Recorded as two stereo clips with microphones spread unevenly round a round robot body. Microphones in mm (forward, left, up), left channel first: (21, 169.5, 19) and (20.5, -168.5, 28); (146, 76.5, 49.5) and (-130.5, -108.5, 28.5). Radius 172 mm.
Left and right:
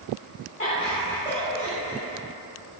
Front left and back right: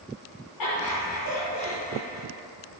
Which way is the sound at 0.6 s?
25° left.